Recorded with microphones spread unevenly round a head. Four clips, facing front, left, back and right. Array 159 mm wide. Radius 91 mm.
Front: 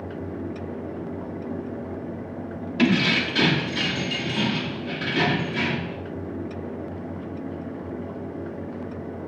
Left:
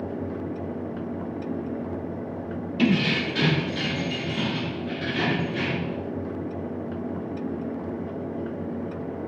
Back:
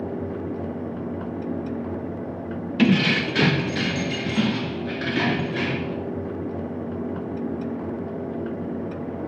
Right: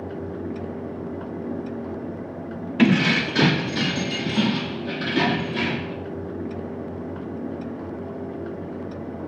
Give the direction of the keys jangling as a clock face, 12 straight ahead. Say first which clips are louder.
Right 4 dB, back 2 dB; 3 o'clock.